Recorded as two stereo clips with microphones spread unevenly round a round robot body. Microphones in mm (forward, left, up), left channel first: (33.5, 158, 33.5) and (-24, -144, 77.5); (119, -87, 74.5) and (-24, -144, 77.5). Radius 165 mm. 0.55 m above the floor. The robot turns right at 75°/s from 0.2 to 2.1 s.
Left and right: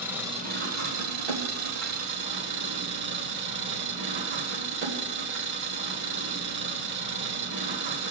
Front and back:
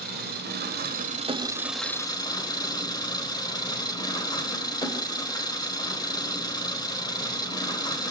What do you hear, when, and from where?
0.0 s an engine running: 175° left, 1.7 m; by 8.1 s 45° right, 1.7 m